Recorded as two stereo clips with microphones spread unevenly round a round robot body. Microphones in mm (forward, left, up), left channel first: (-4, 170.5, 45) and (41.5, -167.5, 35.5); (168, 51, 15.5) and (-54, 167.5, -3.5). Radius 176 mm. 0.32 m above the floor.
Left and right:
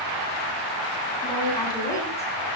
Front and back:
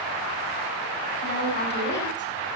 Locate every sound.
1.2 s a woman speaking: 20° left, 9 m; by 2.3 s 15° left, 8 m